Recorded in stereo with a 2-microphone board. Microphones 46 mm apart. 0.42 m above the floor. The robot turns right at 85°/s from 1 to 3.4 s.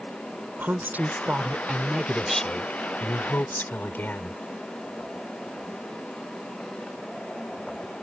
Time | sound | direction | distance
0.6 | a woman speaking | 100° right | ?